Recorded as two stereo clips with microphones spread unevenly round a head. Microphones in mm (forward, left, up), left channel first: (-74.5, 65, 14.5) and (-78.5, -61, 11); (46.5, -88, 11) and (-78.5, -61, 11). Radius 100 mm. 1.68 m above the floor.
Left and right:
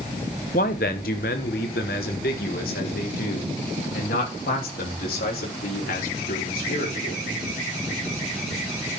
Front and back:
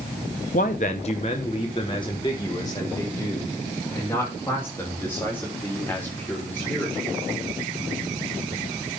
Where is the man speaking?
40° left, 0.9 m; by 7.2 s 70° left, 4.5 m.